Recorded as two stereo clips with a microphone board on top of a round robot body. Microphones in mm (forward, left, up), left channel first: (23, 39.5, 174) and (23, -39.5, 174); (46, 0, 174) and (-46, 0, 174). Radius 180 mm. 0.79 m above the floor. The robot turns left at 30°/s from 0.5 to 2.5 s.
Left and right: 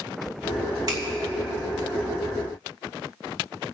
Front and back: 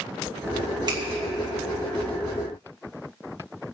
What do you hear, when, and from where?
0.9 s a finger snap: 135° right, 2 m; by 1.0 s 140° right, 2 m